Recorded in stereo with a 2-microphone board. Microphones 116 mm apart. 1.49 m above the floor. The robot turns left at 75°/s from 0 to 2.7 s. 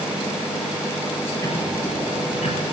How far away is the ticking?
About 6.5 m.